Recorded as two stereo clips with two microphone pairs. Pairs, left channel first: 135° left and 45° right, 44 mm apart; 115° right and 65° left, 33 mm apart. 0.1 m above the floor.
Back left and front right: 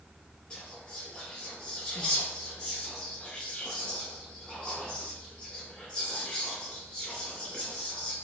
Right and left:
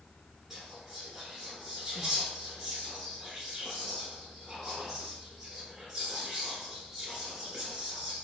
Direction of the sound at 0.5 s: 135° left.